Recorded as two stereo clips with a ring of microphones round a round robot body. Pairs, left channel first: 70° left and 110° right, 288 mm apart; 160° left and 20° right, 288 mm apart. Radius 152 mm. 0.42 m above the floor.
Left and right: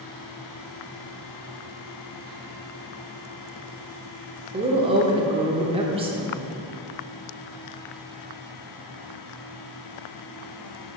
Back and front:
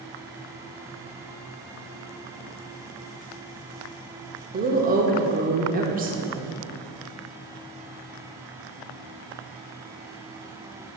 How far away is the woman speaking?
About 1.0 m.